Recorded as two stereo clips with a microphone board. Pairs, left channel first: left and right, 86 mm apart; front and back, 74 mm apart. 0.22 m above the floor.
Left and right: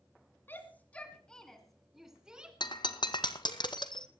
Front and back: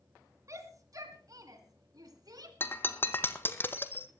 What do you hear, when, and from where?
0.5 s a shout: 150° left, 2 m; by 2.5 s 165° right, 2.5 m
2.6 s breaking glass: 60° left, 0.9 m